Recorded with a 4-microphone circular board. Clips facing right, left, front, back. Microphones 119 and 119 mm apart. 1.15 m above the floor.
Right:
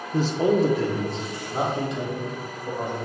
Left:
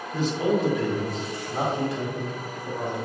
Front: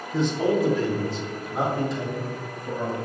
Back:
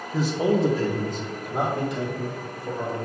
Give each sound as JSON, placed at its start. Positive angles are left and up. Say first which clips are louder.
{"t": 0.1, "sound": "a man speaking", "louder": "right 3 dB, even", "azimuth_deg": -85, "distance_m": 0.5}